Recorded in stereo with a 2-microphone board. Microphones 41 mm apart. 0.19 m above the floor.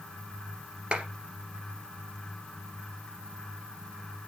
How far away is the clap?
About 2.5 m.